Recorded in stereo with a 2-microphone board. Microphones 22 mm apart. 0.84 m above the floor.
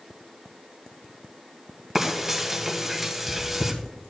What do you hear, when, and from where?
1.9 s frying: 10° right (ahead or behind), 1.3 m